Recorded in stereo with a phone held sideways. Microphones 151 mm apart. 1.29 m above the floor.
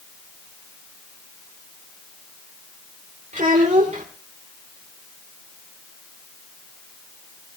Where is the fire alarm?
No fire alarm in this recording.